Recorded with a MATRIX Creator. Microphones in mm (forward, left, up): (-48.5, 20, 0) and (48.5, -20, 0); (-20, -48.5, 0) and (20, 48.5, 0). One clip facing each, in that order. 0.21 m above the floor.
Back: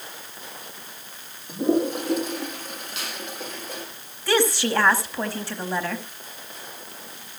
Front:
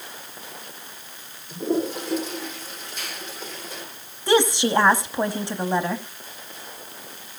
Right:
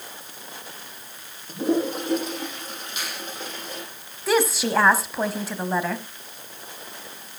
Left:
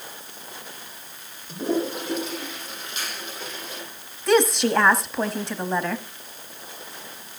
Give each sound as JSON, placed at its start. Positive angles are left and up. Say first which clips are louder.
{"t": 1.5, "sound": "a toilet flushing", "louder": "back 3 dB, right 2 dB", "azimuth_deg": -165, "distance_m": 6.5}
{"t": 3.0, "sound": "a finger snap", "louder": "back 1 dB, even", "azimuth_deg": 165, "distance_m": 8.5}
{"t": 4.3, "sound": "a woman speaking", "louder": "front 3 dB, left 3 dB", "azimuth_deg": -30, "distance_m": 1.0}